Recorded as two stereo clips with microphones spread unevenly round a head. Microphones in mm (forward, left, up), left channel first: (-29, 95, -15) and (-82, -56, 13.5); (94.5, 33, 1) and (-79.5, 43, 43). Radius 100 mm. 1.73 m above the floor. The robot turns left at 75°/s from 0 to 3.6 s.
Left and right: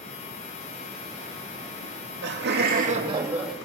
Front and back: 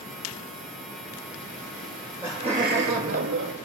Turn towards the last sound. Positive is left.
turn(degrees=155)